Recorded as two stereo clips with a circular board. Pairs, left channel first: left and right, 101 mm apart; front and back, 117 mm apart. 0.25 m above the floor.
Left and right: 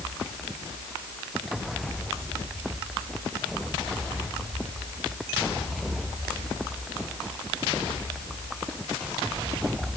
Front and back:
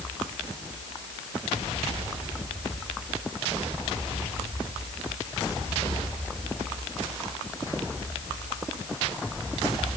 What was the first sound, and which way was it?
Only background noise.